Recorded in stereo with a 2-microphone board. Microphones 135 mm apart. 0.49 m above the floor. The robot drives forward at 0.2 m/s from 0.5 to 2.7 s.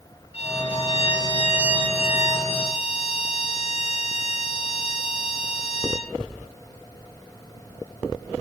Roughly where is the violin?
Left.